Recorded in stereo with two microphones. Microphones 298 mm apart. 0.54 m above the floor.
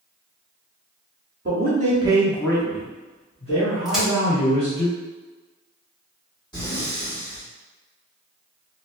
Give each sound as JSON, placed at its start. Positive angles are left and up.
{"t": 1.4, "sound": "a man speaking", "side_deg": -35, "distance_m": 0.8}
{"t": 3.9, "sound": "a crack", "side_deg": 0, "distance_m": 1.2}
{"t": 6.5, "sound": "breathing", "side_deg": 15, "distance_m": 1.4}